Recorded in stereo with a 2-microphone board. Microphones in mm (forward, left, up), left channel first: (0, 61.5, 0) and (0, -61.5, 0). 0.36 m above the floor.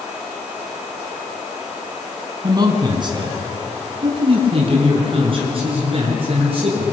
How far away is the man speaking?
About 4 m.